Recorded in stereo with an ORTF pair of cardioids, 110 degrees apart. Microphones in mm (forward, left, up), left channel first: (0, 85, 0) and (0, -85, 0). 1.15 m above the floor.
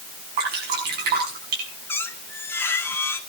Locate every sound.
0.4 s dripping: 65° right, 7 m
1.9 s a squeak: 10° left, 1.8 m